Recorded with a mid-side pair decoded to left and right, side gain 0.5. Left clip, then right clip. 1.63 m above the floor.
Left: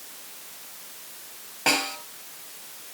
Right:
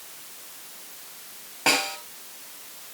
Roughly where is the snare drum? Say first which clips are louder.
Right 1 dB; ahead.